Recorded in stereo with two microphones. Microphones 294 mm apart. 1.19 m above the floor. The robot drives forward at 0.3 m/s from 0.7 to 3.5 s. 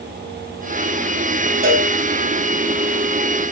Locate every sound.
1.6 s a cowbell: 40° right (ahead or behind), 2 m